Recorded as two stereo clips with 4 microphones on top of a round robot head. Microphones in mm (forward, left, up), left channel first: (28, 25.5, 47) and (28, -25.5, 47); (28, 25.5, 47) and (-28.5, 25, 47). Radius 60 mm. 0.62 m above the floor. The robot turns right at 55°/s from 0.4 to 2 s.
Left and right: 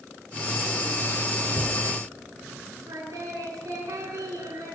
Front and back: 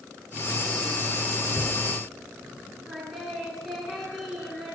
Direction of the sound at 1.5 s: 45° left.